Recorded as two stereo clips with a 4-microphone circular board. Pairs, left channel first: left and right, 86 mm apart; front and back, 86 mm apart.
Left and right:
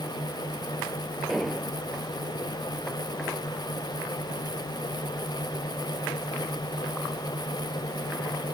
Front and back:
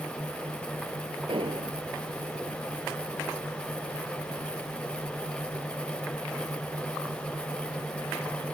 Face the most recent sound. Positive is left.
turn(degrees=180)